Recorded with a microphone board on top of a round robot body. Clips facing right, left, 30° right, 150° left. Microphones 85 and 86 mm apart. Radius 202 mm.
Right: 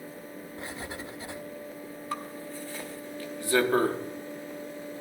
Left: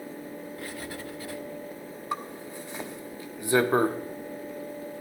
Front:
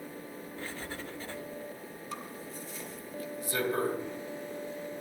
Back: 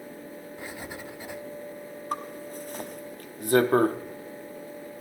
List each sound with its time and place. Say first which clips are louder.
0.6 s writing: left 1 dB, back 1 dB; 140° right, 0.9 m
2.1 s a zipper: left 2 dB, back 9 dB; 160° left, 1.0 m